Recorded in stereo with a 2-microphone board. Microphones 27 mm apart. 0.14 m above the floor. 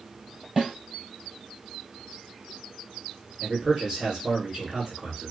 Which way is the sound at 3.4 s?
20° right (ahead or behind).